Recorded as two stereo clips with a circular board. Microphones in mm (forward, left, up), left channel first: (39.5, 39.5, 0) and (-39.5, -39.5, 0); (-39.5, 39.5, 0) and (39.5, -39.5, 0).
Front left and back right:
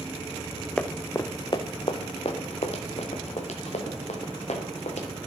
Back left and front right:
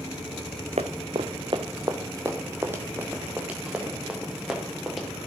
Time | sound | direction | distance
0.8 | running footsteps | 35° right | 0.8 m